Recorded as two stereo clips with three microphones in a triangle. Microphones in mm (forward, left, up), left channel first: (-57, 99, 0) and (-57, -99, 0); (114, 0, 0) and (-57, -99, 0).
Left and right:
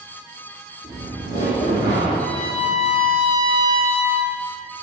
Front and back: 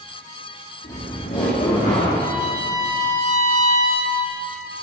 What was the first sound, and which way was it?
Laughter, 15° right.